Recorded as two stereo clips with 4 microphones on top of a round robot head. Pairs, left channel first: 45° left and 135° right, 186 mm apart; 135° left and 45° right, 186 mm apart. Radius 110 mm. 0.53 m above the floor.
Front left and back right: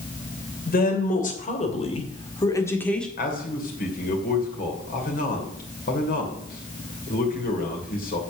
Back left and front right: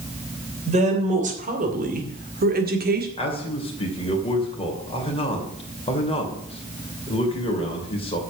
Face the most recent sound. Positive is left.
turn(degrees=80)